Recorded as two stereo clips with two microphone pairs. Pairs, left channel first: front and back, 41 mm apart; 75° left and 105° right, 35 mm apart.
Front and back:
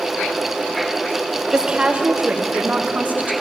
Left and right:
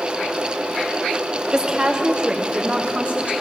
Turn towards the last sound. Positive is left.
turn(degrees=-145)